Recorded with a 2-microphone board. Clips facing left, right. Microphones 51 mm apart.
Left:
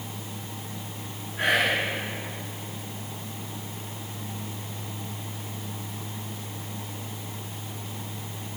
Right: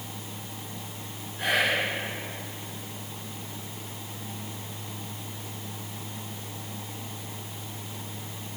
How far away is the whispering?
About 3 m.